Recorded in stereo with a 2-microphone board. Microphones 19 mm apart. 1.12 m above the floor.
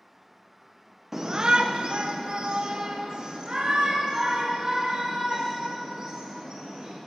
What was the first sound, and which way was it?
A shout, 20° right (ahead or behind).